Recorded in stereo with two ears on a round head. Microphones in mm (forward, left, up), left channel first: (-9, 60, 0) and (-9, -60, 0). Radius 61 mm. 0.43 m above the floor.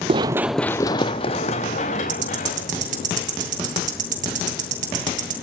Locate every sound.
0.1 s running footsteps: 40° right (ahead or behind), 0.6 m; by 3.1 s 65° left (ahead or behind), 2.5 m
2.1 s ticking: 60° right (ahead or behind), 2.5 m